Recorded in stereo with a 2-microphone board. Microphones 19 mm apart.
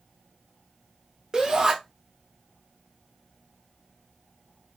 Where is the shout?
30° right (ahead or behind), 0.9 m.